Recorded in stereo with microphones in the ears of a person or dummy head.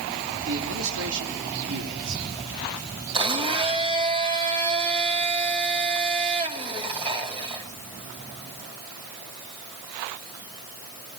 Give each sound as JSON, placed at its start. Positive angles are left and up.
{"t": 0.5, "sound": "a man speaking", "side_deg": -65, "distance_m": 3.0}
{"t": 3.1, "sound": "a blender", "side_deg": -30, "distance_m": 3.0}